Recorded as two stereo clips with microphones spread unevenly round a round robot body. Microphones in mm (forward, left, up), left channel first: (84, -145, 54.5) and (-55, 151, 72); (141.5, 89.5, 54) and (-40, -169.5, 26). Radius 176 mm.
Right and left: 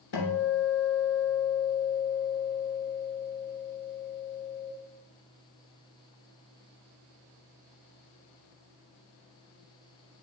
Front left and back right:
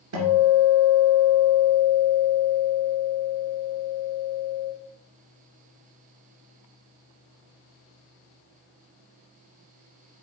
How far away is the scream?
No scream in this recording.